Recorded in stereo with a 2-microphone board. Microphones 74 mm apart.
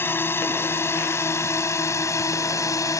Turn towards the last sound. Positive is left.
turn(degrees=45)  # may be behind; listen again after turning